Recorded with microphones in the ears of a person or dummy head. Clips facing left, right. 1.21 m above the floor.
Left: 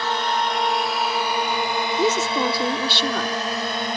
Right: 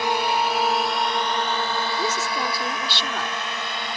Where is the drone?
15° right (ahead or behind); by 4.0 s 35° left (ahead or behind).